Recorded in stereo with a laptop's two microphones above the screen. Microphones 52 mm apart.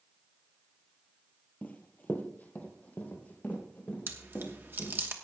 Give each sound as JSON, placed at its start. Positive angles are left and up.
{"t": 1.6, "sound": "running footsteps", "side_deg": 30, "distance_m": 1.1}
{"t": 4.1, "sound": "chewing", "side_deg": -45, "distance_m": 1.1}